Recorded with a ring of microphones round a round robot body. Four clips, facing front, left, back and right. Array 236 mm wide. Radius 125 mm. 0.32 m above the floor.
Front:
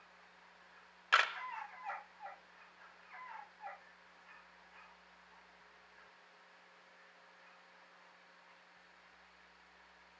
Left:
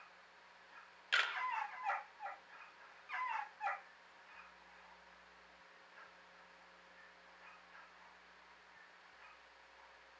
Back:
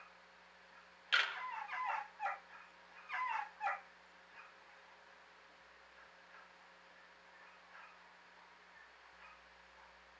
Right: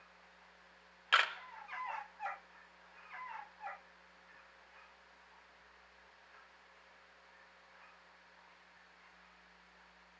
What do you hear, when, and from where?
1.1 s a camera shutter: 35° right, 1.0 m